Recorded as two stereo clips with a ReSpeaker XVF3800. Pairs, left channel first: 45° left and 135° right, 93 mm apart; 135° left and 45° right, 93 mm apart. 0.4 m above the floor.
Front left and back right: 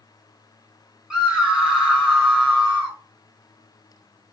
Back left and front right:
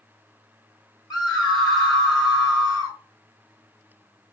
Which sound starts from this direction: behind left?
A scream, at 1.1 s.